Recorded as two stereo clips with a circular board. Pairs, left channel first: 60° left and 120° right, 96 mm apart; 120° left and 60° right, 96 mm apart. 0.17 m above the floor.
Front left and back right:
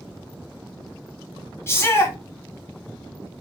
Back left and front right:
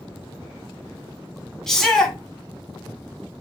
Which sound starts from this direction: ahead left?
A shout, at 1.7 s.